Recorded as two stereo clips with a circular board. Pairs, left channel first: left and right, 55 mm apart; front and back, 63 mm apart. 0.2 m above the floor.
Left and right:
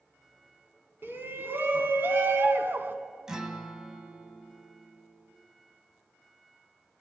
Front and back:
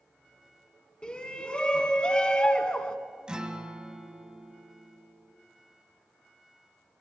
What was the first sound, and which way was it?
A shout, 65° right.